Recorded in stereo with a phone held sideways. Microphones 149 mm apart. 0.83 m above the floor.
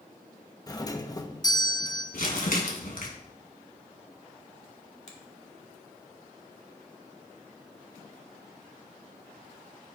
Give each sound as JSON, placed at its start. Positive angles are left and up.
{"t": 0.7, "sound": "a doorbell", "side_deg": 25, "distance_m": 0.9}
{"t": 2.1, "sound": "crumpling", "side_deg": 75, "distance_m": 3.0}
{"t": 5.1, "sound": "a finger snap", "side_deg": 50, "distance_m": 1.9}